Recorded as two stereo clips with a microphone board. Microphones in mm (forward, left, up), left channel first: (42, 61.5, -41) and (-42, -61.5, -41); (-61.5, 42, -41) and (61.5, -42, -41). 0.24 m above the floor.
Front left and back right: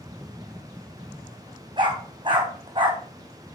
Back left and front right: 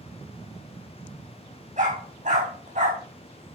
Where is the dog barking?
70° right, 4 m.